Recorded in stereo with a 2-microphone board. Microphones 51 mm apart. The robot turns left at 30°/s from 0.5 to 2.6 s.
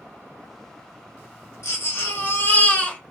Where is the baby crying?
60° left (ahead or behind), 1.3 m; by 3.0 s 30° left (ahead or behind), 1.3 m.